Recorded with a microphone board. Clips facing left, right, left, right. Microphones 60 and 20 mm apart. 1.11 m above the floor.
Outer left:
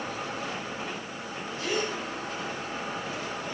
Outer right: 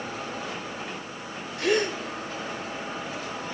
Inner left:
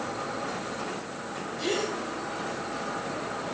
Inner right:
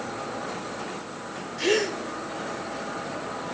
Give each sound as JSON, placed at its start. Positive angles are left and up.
{"t": 1.6, "sound": "a gasp", "side_deg": -75, "distance_m": 3.5}